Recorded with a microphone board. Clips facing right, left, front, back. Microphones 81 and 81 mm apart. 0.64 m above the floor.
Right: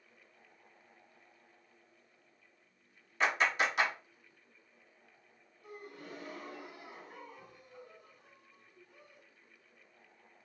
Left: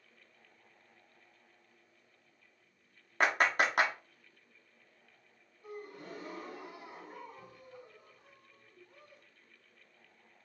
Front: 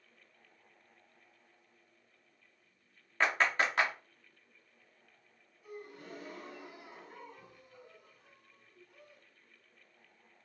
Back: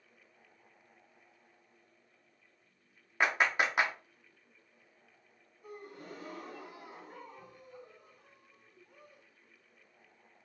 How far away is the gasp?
About 1.4 m.